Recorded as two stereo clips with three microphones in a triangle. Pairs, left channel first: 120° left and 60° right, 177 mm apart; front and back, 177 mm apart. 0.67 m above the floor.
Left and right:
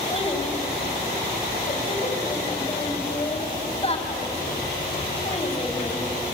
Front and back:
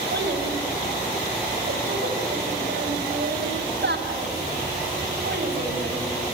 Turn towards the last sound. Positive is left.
turn(degrees=175)